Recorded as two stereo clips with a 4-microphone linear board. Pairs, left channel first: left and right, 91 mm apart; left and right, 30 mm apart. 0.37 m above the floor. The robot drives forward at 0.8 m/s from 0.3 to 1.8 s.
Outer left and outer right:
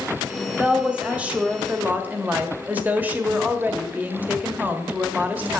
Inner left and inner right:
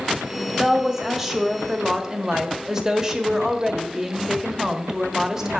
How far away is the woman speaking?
About 1.8 m.